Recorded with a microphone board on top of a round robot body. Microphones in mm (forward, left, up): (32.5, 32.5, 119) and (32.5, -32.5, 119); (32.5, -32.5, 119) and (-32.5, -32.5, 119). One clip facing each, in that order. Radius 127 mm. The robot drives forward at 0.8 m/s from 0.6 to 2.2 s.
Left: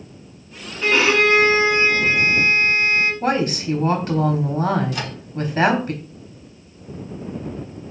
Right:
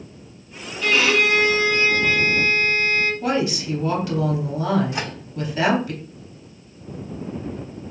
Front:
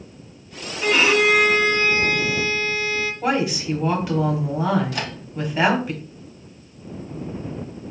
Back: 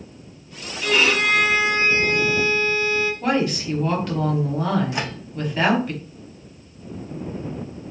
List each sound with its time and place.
0.8 s a violin: 35° left, 0.9 m; by 3.1 s 150° left, 1.0 m
3.2 s a woman speaking: 80° left, 1.0 m
4.9 s a microwave: 130° right, 0.7 m